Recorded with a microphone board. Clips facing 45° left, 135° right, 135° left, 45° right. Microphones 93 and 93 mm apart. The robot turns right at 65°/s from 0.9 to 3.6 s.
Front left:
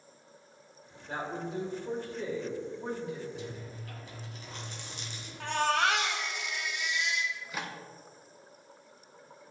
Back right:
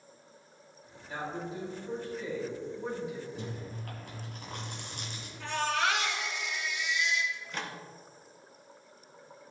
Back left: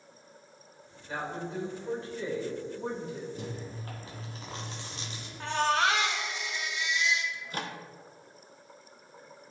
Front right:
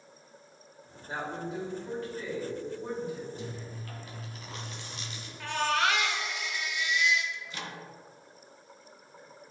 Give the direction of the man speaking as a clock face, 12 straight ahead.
12 o'clock.